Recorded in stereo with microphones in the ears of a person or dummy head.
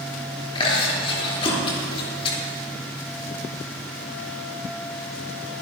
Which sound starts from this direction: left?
Chewing, at 0.6 s.